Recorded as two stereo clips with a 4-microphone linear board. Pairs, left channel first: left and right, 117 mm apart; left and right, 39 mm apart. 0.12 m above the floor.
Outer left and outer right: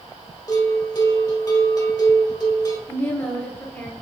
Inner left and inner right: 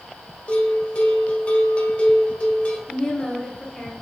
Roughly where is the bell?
Left.